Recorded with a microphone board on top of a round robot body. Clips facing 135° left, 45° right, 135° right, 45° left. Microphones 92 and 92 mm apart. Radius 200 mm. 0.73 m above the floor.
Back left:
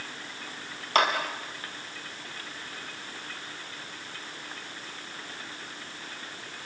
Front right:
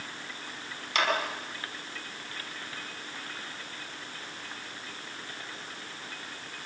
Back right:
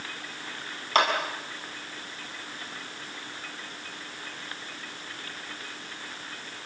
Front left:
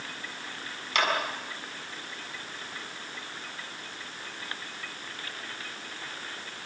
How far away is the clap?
About 6.5 m.